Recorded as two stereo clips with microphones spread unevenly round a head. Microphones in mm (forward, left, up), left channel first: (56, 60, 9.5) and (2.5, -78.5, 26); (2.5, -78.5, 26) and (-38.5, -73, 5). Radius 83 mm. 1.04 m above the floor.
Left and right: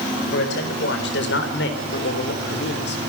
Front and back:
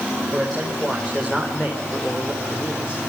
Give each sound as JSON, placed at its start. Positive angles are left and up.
{"t": 0.3, "sound": "a man speaking", "azimuth_deg": 85, "distance_m": 5.0}